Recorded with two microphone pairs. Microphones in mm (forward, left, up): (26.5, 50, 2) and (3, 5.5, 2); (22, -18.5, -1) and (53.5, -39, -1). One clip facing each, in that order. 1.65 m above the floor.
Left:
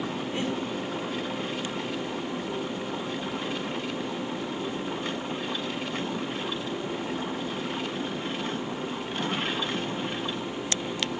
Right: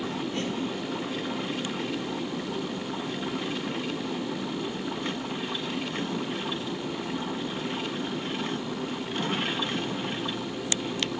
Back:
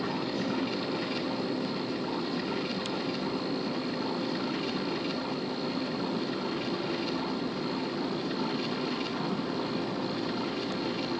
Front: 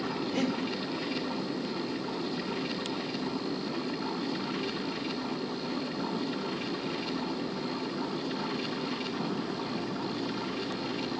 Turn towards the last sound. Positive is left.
turn(degrees=-10)